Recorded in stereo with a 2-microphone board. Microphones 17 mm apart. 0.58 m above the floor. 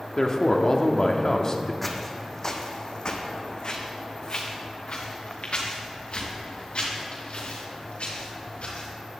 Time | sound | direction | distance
0.2 | a man speaking | 35° left (ahead or behind) | 0.9 m
1.8 | footsteps | 10° left (ahead or behind) | 1.3 m